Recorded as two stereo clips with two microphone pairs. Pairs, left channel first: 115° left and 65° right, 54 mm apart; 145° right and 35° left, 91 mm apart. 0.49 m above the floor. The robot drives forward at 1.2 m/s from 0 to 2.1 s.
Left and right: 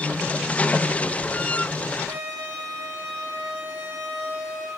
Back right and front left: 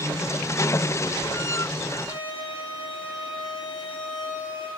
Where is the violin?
125° right, 2.5 m.